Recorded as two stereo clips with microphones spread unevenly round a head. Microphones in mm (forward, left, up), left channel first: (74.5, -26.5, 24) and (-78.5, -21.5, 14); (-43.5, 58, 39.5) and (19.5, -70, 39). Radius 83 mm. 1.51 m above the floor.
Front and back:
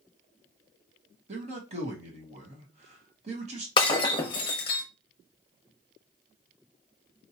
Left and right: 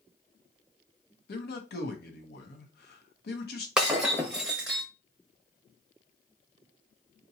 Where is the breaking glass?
20° left, 0.9 m.